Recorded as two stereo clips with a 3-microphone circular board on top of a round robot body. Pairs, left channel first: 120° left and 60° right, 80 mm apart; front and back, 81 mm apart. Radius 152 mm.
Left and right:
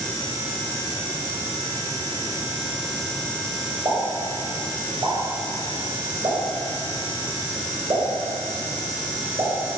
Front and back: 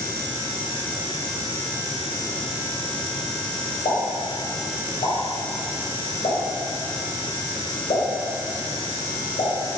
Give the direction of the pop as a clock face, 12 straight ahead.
12 o'clock.